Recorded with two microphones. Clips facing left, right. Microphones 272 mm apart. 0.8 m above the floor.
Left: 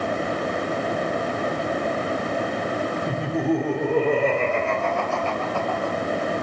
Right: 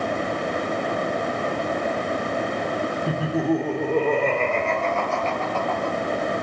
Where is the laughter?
10° right (ahead or behind), 2.0 m; by 5.9 s 15° left (ahead or behind), 4 m.